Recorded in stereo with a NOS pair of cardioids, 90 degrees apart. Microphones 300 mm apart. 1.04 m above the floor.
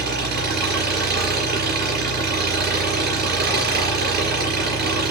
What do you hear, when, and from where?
0.0 s an engine running: 35° right, 6 m